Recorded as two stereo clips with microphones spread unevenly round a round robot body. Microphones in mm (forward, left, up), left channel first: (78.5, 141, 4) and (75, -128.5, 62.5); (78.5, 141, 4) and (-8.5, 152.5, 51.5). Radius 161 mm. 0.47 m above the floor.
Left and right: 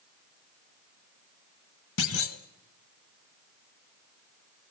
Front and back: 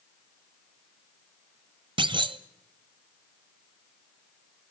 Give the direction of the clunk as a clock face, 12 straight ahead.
7 o'clock.